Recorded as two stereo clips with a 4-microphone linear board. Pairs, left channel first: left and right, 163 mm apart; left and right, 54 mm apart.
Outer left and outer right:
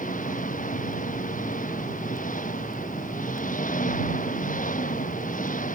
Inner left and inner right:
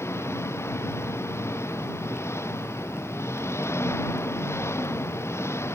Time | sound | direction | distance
0.0 | an engine running | 55° left (ahead or behind) | ?